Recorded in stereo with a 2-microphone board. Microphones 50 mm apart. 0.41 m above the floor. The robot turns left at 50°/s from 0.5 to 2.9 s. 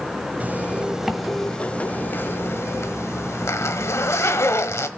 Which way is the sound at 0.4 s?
145° right.